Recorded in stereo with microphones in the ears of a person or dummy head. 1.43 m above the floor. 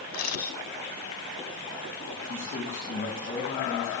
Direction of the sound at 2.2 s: 45° left (ahead or behind).